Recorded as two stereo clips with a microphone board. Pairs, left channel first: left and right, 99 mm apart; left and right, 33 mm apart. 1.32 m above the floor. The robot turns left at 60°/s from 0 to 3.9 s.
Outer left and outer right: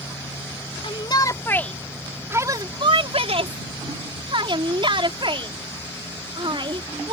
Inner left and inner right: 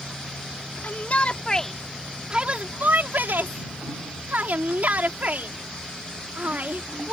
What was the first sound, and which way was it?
A shout, 60° left (ahead or behind).